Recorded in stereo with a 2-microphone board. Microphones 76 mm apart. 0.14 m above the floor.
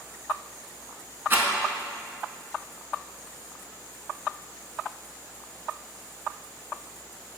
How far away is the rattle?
About 0.6 m.